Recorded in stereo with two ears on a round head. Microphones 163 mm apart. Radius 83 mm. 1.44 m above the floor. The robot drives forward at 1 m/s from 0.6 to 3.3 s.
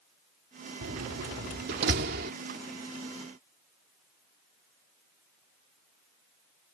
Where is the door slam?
80° right; by 2.3 s 60° right (ahead or behind).